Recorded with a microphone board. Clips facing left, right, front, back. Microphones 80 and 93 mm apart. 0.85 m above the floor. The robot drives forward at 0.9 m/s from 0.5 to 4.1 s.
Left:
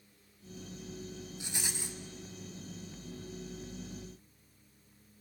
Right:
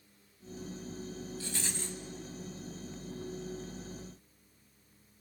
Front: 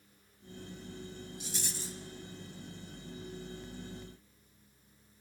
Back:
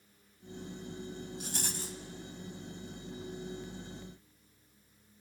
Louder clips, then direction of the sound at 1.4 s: Right 2 dB, back 2 dB; 160° left.